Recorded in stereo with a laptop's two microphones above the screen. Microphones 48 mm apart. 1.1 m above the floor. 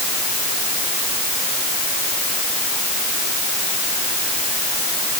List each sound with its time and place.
Only background noise.